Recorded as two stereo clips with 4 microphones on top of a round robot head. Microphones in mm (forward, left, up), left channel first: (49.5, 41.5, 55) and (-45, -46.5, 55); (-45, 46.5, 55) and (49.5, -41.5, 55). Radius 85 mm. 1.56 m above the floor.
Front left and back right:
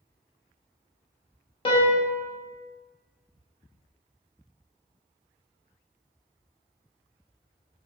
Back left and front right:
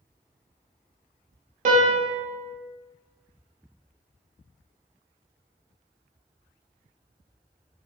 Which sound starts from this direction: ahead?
A piano, at 1.6 s.